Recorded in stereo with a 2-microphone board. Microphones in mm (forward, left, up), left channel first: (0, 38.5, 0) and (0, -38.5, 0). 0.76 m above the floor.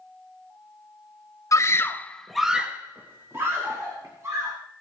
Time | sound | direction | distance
1.5 | a scream | 40° left (ahead or behind) | 1.0 m